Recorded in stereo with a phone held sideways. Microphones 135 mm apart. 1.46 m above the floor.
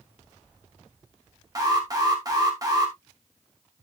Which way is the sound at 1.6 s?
25° right (ahead or behind).